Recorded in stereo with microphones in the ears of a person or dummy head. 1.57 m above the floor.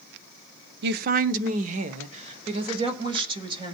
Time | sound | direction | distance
0.8 | a woman speaking | 60° right (ahead or behind) | 0.7 m